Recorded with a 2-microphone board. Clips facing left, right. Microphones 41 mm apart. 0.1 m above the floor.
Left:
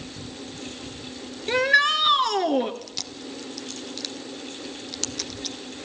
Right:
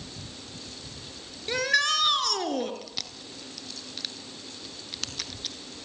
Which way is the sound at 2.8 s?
10° right (ahead or behind).